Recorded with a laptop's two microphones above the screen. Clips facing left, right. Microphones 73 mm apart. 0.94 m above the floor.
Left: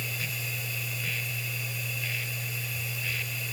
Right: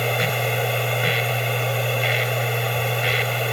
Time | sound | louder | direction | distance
0.0 | a machine running | right 15 dB | 65° right (ahead or behind) | ?